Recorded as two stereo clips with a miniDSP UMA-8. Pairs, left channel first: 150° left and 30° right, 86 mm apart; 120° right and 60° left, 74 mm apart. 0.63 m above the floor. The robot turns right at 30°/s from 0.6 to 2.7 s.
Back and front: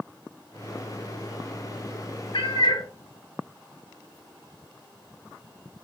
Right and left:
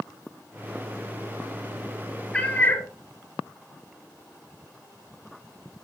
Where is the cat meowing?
165° left, 1.2 m; by 2.9 s 175° left, 1.2 m.